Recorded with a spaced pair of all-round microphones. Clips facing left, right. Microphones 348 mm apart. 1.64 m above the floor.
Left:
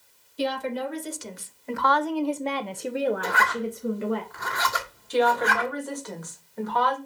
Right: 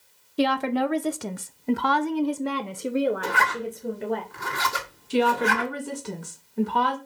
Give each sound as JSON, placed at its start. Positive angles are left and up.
{"t": 0.4, "sound": "a woman speaking", "side_deg": -75, "distance_m": 1.1}
{"t": 3.2, "sound": "a zipper", "side_deg": -40, "distance_m": 1.6}
{"t": 5.1, "sound": "a woman speaking", "side_deg": -40, "distance_m": 2.5}